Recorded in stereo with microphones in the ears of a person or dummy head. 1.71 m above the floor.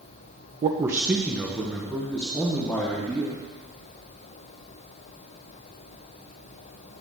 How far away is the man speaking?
About 0.6 m.